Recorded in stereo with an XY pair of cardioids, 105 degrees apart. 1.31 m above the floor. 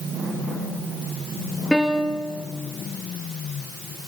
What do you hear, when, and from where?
1.7 s a piano: straight ahead, 2.5 m